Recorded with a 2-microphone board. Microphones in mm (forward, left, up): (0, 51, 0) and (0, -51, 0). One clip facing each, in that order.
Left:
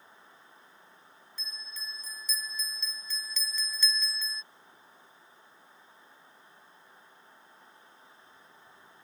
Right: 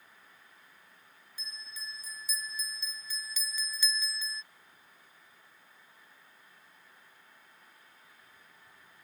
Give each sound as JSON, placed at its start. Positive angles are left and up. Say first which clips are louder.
{"t": 1.4, "sound": "a bell", "louder": "left 1 dB", "side_deg": -10}